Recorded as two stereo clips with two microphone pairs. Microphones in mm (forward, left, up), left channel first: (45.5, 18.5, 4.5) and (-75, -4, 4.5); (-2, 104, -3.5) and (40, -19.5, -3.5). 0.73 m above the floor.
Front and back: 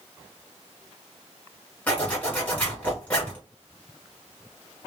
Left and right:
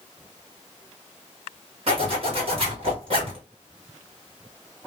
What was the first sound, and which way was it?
A zipper, 60° right.